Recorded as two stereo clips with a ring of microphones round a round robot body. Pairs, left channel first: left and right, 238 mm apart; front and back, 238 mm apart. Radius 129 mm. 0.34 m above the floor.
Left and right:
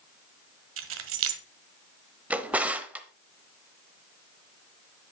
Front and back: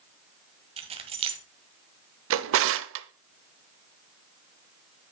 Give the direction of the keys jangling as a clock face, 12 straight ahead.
4 o'clock.